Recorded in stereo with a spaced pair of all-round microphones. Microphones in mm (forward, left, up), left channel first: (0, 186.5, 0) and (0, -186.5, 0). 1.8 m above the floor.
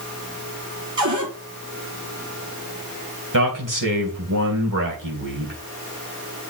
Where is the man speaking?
60° right (ahead or behind), 2.5 m.